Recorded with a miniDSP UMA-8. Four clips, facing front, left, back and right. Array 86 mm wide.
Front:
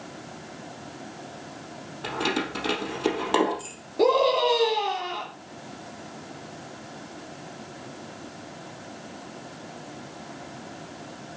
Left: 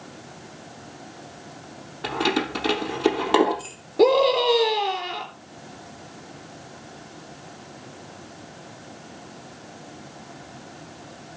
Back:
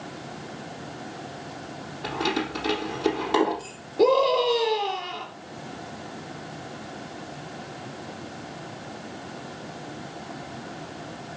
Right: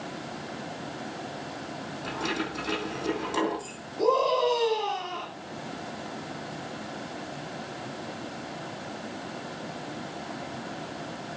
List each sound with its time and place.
2.0 s keys jangling: 80° left, 3.5 m
4.0 s a scream: 80° left, 3.5 m